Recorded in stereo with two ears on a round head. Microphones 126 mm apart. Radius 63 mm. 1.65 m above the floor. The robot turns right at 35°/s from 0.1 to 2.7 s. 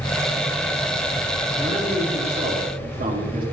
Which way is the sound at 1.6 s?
150° right.